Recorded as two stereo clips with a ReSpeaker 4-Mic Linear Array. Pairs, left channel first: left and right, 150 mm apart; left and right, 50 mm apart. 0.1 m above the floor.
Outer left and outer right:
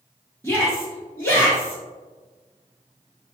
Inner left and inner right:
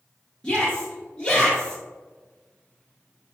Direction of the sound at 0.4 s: 15° left (ahead or behind).